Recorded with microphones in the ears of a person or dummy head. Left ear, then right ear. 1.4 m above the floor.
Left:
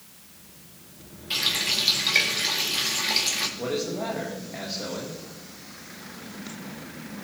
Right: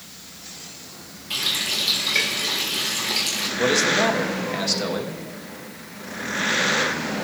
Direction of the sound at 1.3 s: 15° left (ahead or behind).